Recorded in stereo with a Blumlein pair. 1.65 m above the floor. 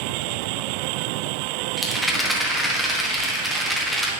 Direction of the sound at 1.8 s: 5° right.